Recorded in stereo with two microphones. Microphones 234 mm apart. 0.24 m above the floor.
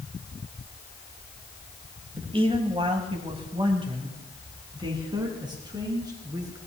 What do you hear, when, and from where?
2.2 s a man speaking: 20° right (ahead or behind), 1.7 m; by 6.6 s 15° right (ahead or behind), 4 m